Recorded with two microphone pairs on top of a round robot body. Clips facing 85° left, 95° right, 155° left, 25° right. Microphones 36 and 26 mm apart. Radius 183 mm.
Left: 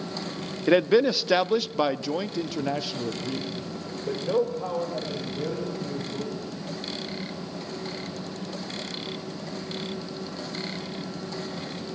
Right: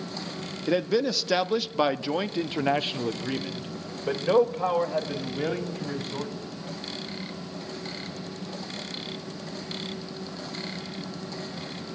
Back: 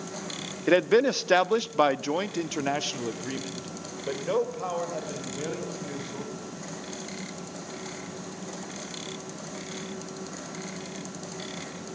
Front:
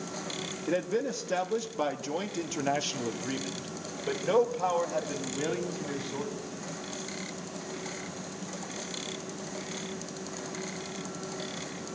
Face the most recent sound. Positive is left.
turn(degrees=-110)